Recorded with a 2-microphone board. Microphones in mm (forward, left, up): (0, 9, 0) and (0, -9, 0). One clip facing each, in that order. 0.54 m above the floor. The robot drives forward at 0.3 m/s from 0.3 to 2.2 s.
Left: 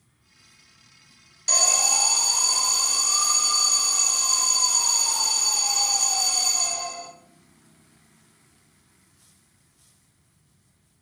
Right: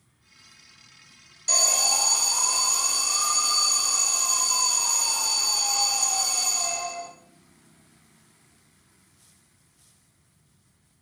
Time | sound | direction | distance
1.5 | an alarm | 20° left (ahead or behind) | 0.5 m